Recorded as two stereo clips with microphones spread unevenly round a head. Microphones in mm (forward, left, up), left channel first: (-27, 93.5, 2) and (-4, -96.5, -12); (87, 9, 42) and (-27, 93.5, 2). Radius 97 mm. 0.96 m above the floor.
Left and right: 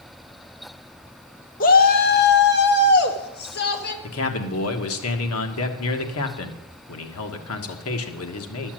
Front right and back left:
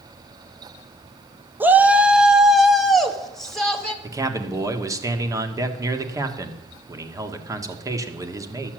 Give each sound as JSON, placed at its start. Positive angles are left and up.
{"t": 1.6, "sound": "a shout", "azimuth_deg": 105, "distance_m": 0.9}
{"t": 4.0, "sound": "a man speaking", "azimuth_deg": 75, "distance_m": 1.6}